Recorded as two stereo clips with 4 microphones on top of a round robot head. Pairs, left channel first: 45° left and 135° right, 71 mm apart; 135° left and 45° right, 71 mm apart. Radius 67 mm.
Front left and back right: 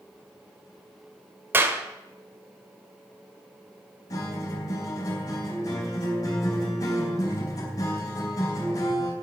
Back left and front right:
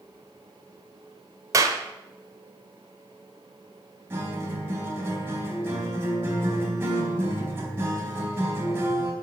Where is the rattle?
No rattle in this recording.